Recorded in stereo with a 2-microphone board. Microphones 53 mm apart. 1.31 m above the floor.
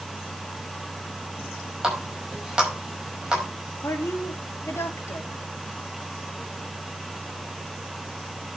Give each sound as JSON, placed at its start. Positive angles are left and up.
{"t": 1.8, "sound": "a running tap", "side_deg": -10, "distance_m": 5.0}
{"t": 3.8, "sound": "a woman speaking", "side_deg": 60, "distance_m": 3.0}